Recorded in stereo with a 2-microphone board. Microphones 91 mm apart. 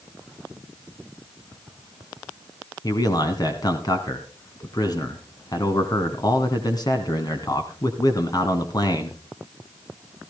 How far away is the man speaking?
About 1.8 m.